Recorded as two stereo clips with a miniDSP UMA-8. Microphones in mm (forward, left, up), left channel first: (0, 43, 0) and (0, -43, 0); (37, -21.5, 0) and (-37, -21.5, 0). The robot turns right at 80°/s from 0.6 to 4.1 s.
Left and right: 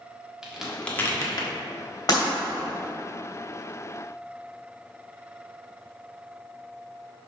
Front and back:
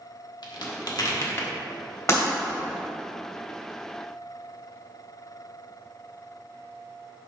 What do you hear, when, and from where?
0.4 s a crack: 10° right, 1.3 m; by 1.5 s 65° left, 1.3 m
2.1 s breaking glass: 50° left, 2 m; by 2.2 s 60° left, 2 m